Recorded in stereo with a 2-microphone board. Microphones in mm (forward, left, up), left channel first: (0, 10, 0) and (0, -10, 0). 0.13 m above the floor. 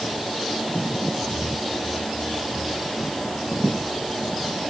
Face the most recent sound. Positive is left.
No sound to turn to.